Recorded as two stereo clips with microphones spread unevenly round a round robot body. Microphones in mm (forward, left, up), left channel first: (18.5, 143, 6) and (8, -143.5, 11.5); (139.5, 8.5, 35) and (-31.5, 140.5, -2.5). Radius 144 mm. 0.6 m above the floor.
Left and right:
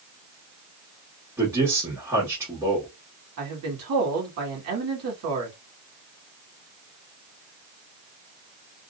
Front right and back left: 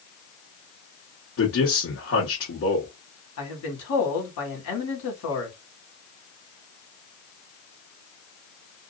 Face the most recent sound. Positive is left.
turn(degrees=-60)